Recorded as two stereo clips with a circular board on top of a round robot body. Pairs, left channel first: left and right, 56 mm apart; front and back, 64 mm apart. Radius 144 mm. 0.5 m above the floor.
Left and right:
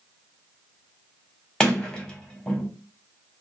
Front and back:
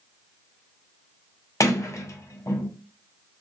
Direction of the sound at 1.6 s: 15° left.